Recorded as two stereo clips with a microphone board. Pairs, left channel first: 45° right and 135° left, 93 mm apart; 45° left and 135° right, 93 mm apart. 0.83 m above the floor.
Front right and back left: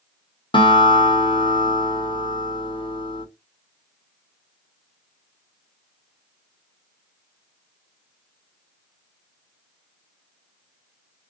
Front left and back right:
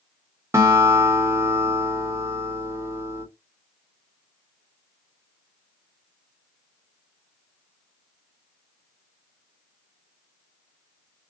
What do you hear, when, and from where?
0.5 s a guitar: 75° right, 1.5 m